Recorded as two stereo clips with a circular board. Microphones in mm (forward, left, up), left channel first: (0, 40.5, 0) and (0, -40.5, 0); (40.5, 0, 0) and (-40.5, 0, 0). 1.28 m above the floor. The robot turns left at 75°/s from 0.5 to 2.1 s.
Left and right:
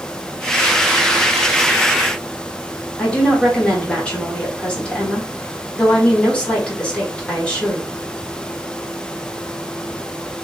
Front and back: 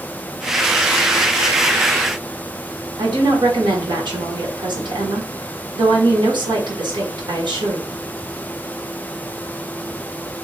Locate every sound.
3.0 s a woman speaking: 165° left, 1.1 m